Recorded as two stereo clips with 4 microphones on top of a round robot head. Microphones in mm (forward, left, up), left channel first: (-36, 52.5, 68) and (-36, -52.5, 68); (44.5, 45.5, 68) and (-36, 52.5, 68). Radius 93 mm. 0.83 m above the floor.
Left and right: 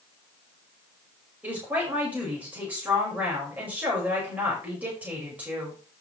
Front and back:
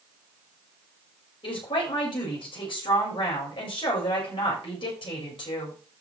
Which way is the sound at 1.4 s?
10° right.